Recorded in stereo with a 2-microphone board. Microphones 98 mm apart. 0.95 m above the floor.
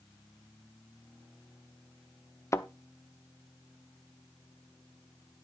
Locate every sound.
2.5 s a thud: 30° left (ahead or behind), 0.7 m